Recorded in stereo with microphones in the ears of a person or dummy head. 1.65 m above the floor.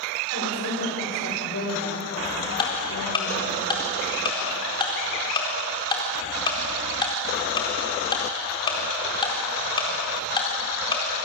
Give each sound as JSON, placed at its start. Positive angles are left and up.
{"t": 0.3, "sound": "a woman speaking", "side_deg": 80, "distance_m": 7.5}
{"t": 2.6, "sound": "ticking", "side_deg": 30, "distance_m": 4.0}